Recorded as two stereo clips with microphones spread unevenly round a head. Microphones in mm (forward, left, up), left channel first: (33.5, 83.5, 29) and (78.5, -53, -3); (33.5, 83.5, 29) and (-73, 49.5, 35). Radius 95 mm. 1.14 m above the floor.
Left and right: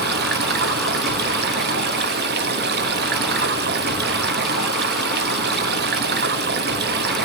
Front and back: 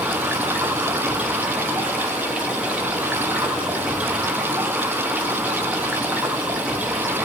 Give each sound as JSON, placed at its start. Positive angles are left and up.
{"t": 0.0, "sound": "running water", "azimuth_deg": -80, "distance_m": 1.1}